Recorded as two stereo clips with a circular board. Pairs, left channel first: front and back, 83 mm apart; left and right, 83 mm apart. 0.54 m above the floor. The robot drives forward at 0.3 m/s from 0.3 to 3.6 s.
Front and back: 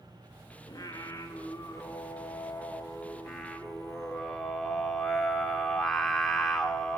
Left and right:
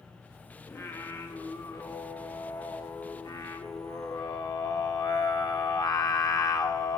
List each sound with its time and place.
0.7 s singing: 40° left, 1.4 m; by 7.0 s 85° left, 1.0 m